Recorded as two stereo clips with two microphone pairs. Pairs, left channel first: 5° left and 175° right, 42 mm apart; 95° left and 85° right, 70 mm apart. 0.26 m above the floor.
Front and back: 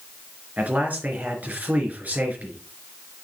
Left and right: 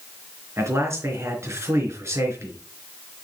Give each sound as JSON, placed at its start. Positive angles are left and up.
{"t": 0.6, "sound": "a man speaking", "azimuth_deg": -130, "distance_m": 3.5}